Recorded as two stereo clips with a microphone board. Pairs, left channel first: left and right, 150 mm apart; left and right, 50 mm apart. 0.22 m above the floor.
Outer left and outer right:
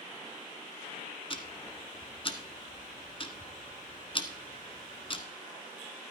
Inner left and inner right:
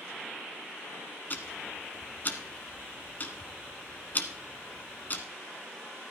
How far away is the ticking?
About 1.1 m.